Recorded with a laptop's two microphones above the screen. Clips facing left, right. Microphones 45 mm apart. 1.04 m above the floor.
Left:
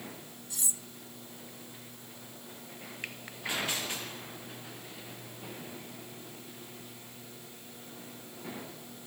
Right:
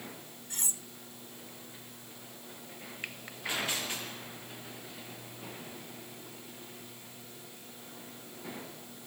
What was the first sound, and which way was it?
Cutlery clinking, 45° right (ahead or behind).